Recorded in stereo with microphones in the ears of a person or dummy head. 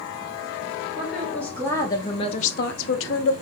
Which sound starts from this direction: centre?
A woman speaking, at 1.0 s.